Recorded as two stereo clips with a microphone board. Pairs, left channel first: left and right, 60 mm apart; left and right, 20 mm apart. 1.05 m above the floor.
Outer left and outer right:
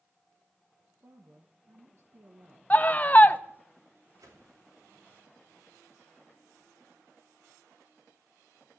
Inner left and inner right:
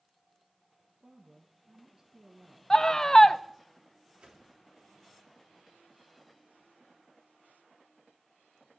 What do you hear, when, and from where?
1.0 s a woman speaking: 50° right (ahead or behind), 1.1 m
2.7 s a scream: 25° left (ahead or behind), 0.6 m
4.2 s a whoosh: 75° right (ahead or behind), 3 m